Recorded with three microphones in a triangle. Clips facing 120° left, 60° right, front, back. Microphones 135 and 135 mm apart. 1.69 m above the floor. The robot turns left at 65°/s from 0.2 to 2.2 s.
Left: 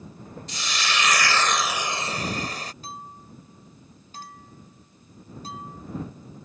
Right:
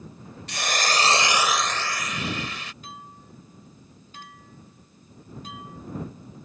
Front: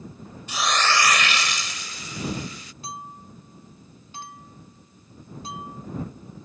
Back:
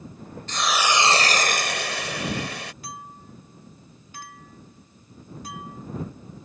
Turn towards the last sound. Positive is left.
turn(degrees=65)